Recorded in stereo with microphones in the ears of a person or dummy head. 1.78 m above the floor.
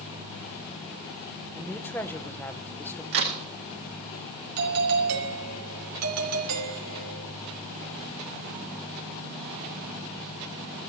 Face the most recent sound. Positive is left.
turn(degrees=-80)